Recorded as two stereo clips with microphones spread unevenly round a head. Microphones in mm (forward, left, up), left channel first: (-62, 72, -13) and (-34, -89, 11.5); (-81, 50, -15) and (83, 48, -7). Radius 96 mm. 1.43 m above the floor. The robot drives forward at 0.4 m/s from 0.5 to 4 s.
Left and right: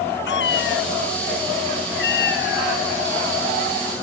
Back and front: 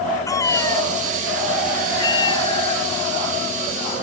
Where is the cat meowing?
110° left; by 3.9 s 125° left.